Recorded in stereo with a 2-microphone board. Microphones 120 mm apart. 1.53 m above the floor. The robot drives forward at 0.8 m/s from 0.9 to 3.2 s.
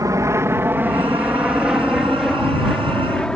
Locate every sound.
0.0 s an aircraft: 30° right (ahead or behind); by 3.4 s 5° left (ahead or behind)